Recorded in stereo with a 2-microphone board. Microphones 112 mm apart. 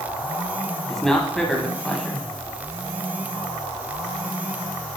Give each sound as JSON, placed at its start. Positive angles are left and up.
{"t": 0.9, "sound": "a man speaking", "side_deg": 5, "distance_m": 1.5}